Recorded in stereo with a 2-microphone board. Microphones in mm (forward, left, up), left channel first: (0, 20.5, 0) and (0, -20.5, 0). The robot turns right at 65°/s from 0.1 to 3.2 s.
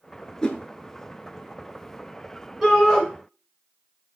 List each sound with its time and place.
0.4 s a whoosh: 20° left (ahead or behind), 0.6 m; by 0.6 s 30° left (ahead or behind), 0.6 m
2.6 s a shout: 5° right (ahead or behind), 1.8 m; by 3.0 s 5° left (ahead or behind), 1.8 m